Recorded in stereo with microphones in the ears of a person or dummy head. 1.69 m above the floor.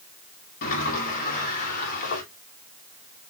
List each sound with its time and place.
0.6 s a sliding door: 45° left (ahead or behind), 1.4 m